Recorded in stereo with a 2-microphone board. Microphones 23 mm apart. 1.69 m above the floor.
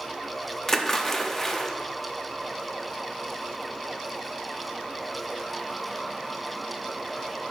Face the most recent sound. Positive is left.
turn(degrees=20)  # may be behind; listen again after turning